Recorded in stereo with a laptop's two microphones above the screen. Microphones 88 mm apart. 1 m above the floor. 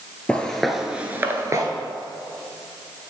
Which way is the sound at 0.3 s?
15° left (ahead or behind).